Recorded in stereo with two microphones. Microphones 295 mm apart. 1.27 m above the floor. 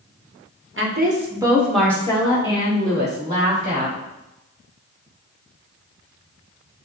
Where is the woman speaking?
45° right (ahead or behind), 1.0 m; by 4.0 s 30° left (ahead or behind), 3.5 m.